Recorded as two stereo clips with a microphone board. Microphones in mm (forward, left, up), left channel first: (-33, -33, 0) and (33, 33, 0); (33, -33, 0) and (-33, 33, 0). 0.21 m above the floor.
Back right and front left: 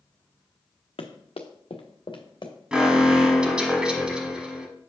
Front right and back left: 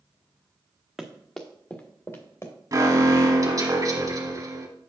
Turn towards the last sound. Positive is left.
turn(degrees=120)